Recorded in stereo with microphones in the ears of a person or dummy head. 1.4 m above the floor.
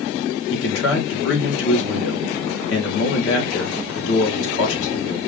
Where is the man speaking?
80° left, 1.7 m.